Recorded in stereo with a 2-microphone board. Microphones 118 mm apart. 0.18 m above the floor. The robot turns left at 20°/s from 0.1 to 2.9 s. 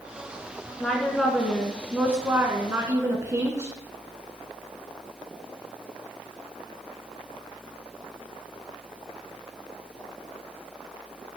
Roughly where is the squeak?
I don't hear a squeak.